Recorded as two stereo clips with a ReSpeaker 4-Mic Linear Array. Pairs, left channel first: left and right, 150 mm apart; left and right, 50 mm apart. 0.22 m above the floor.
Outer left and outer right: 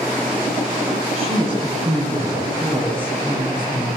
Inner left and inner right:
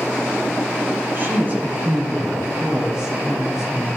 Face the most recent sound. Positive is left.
turn(degrees=-5)  # may be behind; listen again after turning